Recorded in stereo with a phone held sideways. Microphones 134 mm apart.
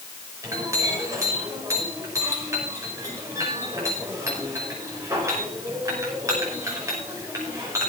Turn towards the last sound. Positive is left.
turn(degrees=-25)  # may be behind; listen again after turning